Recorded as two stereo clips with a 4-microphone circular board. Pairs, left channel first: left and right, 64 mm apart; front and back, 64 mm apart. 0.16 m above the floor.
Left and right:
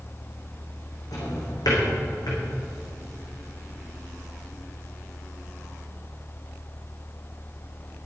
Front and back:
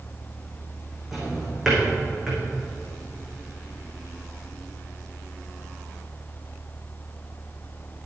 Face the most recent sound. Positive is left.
turn(degrees=90)